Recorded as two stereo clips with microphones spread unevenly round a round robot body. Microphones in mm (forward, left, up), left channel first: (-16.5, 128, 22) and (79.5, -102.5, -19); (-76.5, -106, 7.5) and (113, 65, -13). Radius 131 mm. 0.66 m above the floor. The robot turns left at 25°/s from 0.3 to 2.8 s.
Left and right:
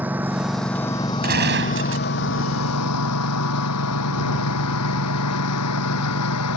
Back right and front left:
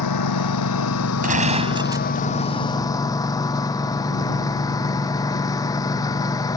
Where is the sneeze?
No sneeze in this recording.